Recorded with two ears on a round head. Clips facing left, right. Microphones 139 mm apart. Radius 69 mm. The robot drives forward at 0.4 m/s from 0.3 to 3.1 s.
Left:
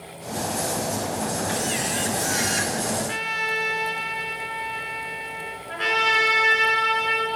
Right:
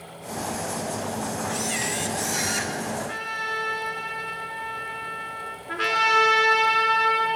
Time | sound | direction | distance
1.5 | a camera shutter | 10° right (ahead or behind) | 0.9 m
3.0 | a trumpet | 25° left (ahead or behind) | 2.5 m
5.7 | a trumpet | 65° right (ahead or behind) | 4.5 m